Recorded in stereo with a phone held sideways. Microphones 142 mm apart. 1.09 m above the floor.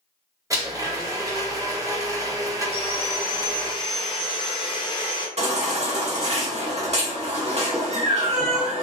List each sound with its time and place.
0.5 s a blender: 20° right (ahead or behind), 0.8 m
2.7 s sawing: 35° left (ahead or behind), 0.8 m
5.4 s a baby crying: 50° right (ahead or behind), 0.9 m